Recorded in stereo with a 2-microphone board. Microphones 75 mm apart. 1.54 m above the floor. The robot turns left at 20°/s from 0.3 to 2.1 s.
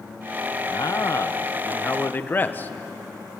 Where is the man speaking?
55° left (ahead or behind), 1.4 m; by 2.7 s 25° left (ahead or behind), 1.4 m.